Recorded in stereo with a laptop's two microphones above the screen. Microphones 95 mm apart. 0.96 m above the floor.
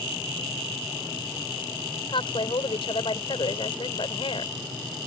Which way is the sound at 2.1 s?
65° left (ahead or behind).